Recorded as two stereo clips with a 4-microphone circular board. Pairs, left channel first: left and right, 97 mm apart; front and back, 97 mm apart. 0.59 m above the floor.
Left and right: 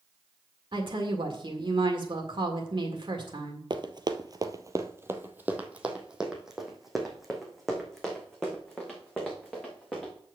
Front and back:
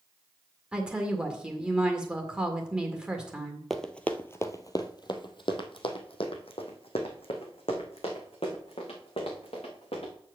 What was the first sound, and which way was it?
A woman speaking, 100° right.